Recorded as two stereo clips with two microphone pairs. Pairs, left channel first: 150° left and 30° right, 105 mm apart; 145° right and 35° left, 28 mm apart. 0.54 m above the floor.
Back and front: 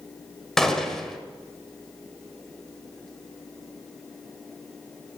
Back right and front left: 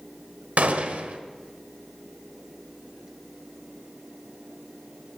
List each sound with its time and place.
0.6 s a gunshot: 65° left, 1.4 m